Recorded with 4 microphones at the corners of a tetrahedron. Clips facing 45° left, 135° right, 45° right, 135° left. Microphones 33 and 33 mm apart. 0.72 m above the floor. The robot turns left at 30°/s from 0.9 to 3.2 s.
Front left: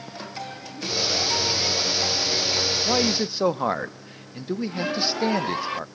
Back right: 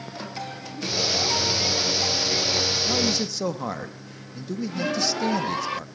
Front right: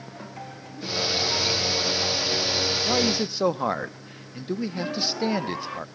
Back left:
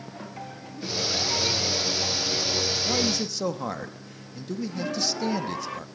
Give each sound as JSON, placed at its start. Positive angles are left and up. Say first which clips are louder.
{"t": 2.9, "sound": "a man speaking", "louder": "front left 2 dB, front right 3 dB", "azimuth_deg": 10, "distance_m": 0.6}